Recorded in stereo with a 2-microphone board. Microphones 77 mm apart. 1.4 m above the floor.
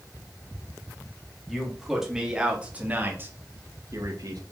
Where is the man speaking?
Centre (ahead or behind), 3 m; by 4.4 s 65° right (ahead or behind), 1.9 m.